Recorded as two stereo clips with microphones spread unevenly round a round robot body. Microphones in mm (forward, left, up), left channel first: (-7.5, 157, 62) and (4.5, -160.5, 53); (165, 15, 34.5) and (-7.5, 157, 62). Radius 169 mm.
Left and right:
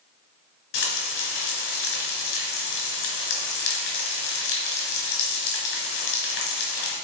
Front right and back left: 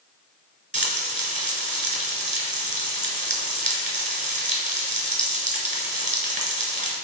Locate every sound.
0.7 s frying: 85° left, 2.5 m